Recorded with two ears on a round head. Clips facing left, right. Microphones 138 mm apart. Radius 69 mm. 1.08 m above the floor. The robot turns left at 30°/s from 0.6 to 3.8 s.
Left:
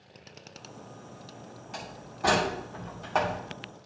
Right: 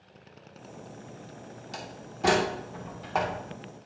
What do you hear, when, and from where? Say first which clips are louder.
1.7 s a door slam: even; 45° right (ahead or behind), 2.5 m; by 3.4 s 5° left (ahead or behind), 2.5 m